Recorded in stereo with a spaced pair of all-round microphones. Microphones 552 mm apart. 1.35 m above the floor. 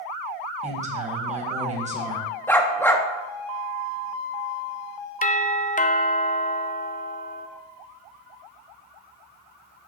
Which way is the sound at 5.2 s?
15° left (ahead or behind).